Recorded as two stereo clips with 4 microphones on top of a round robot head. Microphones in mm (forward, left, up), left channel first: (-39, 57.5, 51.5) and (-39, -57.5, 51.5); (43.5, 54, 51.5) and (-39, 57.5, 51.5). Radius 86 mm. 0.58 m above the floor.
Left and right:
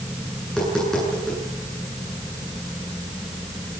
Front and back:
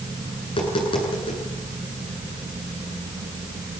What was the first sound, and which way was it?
Tapping, 5° left.